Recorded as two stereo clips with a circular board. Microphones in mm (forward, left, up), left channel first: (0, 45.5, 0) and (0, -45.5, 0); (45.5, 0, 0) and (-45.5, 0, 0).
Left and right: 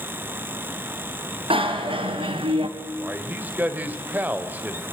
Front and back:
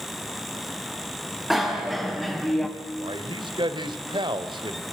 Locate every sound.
1.5 s a bicycle bell: 90° right, 3.5 m; by 2.7 s 85° right, 2.5 m
3.0 s a man speaking: 160° right, 2.5 m